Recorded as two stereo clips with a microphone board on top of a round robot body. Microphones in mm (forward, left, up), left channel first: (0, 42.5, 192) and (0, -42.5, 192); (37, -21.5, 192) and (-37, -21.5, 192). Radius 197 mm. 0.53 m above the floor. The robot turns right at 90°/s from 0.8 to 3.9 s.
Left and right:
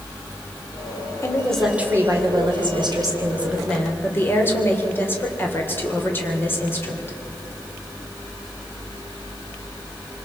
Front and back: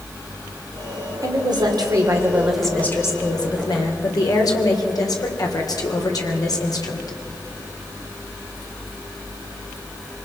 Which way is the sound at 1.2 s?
145° left.